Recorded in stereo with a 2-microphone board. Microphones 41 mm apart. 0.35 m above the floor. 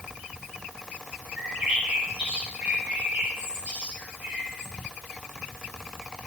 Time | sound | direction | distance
1.4 | a bird | 25° right (ahead or behind) | 4.5 m